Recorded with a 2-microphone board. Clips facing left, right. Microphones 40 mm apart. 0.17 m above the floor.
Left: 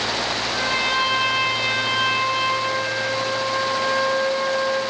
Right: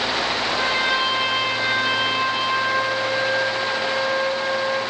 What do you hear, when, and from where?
0.5 s a trumpet: 20° right (ahead or behind), 2.5 m